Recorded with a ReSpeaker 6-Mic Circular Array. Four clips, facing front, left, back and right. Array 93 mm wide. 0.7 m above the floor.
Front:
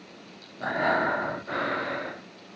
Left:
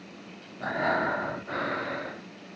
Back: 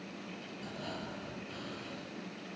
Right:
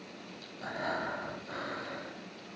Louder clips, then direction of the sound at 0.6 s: Left 8 dB, front 19 dB; 30° left.